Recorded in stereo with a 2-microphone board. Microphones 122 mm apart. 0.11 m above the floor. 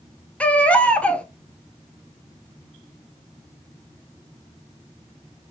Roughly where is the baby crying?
Centre.